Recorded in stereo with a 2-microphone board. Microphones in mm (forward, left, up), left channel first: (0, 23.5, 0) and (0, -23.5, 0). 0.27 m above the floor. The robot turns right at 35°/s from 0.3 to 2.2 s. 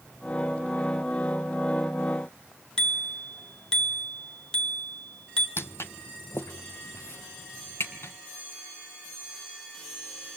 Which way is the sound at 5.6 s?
55° left (ahead or behind).